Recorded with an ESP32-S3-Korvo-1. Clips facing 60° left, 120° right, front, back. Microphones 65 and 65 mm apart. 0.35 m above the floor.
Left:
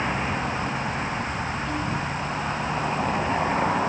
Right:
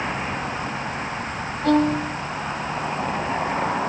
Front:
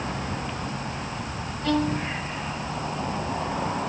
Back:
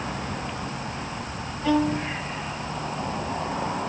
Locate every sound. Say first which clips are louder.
1.6 s a violin: right 8 dB, back 2 dB; 100° right